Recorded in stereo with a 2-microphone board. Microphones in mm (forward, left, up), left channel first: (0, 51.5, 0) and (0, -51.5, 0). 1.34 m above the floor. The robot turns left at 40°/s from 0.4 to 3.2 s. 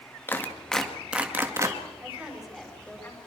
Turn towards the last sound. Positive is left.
turn(degrees=150)